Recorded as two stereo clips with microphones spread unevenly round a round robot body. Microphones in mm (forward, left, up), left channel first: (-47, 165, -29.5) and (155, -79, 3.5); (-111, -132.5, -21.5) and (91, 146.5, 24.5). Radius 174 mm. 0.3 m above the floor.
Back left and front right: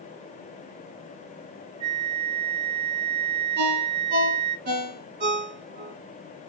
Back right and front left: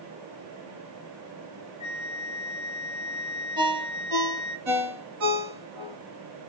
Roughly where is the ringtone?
Ahead.